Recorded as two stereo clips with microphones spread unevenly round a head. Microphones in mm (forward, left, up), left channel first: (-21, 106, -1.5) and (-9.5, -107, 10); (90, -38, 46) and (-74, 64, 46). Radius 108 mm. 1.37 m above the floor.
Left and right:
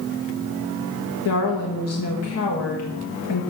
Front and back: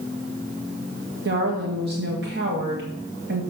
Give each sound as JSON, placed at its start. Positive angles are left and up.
{"t": 1.2, "sound": "a woman speaking", "azimuth_deg": 110, "distance_m": 1.4}